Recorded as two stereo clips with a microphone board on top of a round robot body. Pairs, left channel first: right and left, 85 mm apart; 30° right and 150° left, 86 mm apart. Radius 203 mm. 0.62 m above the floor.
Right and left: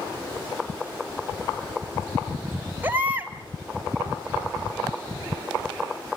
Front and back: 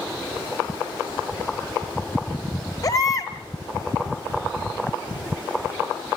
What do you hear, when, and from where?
2.8 s a baby crying: 20° left, 1.6 m